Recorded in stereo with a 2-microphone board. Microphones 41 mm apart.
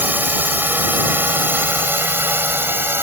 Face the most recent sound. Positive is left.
turn(degrees=-70)  # may be behind; listen again after turning